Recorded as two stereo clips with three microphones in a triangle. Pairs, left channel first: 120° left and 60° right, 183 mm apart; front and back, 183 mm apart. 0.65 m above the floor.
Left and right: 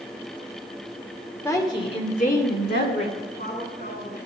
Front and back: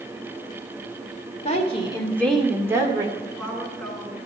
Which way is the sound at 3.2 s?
85° left.